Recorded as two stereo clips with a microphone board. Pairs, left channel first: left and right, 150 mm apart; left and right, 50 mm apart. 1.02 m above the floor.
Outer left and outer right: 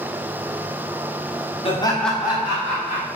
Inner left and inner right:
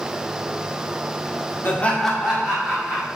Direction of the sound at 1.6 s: 40° left (ahead or behind).